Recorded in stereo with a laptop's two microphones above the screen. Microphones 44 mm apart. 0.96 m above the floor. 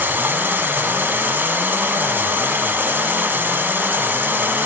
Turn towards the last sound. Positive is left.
turn(degrees=-50)  # may be behind; listen again after turning